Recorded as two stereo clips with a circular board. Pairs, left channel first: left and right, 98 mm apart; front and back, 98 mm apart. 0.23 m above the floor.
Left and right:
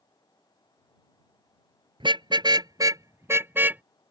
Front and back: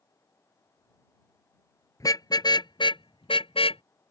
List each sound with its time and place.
2.0 s a car horn: 55° right; by 3.8 s 15° right